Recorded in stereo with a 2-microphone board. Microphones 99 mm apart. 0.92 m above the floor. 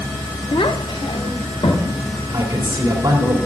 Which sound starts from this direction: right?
A man speaking, at 2.3 s.